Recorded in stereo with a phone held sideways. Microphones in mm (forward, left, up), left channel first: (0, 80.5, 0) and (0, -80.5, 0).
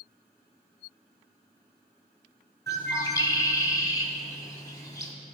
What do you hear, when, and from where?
2.7 s a bird: 25° left (ahead or behind), 1.3 m